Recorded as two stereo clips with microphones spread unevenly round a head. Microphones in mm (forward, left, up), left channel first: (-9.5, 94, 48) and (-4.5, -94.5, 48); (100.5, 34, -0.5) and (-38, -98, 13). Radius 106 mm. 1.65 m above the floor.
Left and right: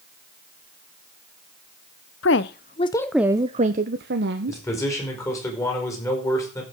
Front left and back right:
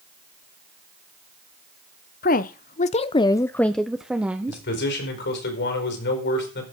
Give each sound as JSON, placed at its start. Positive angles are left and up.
{"t": 2.2, "sound": "a woman speaking", "azimuth_deg": 90, "distance_m": 0.7}
{"t": 4.5, "sound": "a man speaking", "azimuth_deg": 15, "distance_m": 5.0}